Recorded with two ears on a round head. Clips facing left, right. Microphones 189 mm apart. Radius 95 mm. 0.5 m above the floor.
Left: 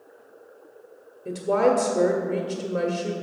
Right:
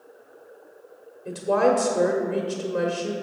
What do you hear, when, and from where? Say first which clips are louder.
1.2 s a woman speaking: even; 10° left (ahead or behind), 1.0 m